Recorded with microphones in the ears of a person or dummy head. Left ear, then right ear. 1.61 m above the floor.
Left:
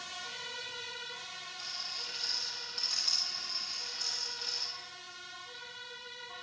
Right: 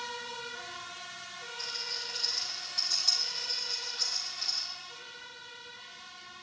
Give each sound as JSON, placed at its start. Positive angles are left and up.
{"t": 1.6, "sound": "a rattle", "side_deg": -5, "distance_m": 3.0}